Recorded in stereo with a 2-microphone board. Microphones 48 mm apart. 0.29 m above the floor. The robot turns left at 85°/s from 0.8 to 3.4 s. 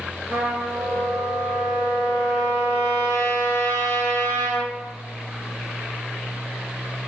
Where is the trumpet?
45° right, 3 m; by 4.7 s 95° left, 3 m.